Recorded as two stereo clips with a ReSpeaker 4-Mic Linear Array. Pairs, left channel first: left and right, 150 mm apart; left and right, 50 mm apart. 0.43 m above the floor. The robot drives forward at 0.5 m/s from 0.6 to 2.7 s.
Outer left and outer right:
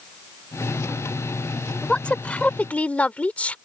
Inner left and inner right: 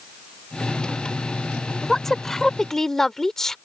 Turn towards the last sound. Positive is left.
turn(degrees=10)  # may be behind; listen again after turning